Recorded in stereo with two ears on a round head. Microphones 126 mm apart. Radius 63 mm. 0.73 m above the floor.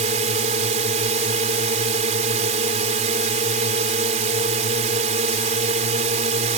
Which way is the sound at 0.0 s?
50° right (ahead or behind).